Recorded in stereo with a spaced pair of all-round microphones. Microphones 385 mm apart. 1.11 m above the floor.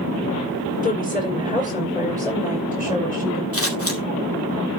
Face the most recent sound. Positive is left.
turn(degrees=35)  # may be behind; listen again after turning